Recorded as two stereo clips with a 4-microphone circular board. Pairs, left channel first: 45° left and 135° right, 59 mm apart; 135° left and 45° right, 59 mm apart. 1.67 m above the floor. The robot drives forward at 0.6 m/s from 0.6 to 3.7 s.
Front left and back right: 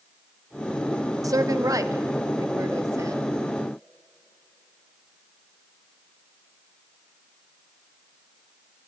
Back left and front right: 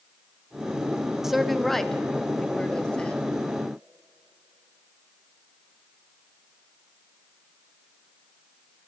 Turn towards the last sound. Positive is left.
turn(degrees=-160)